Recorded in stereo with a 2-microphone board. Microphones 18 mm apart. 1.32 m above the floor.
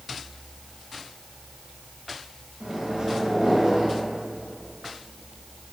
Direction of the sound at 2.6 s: 50° right (ahead or behind).